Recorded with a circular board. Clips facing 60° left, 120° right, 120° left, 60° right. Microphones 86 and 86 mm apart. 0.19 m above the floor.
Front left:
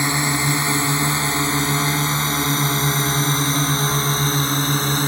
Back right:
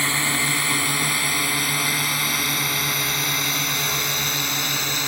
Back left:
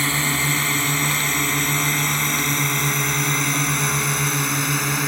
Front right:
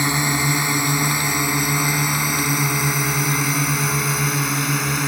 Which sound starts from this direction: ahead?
A drone, at 0.0 s.